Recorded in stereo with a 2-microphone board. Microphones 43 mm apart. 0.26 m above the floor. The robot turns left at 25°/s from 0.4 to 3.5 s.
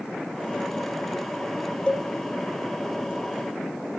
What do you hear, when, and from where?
1.9 s a cowbell: 25° left (ahead or behind), 0.7 m